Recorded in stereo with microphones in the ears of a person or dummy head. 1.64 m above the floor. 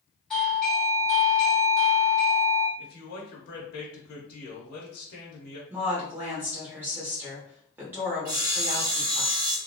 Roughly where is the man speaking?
Left.